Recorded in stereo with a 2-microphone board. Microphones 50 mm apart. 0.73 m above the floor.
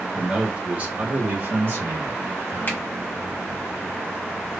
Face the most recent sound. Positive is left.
turn(degrees=35)  # may be behind; listen again after turning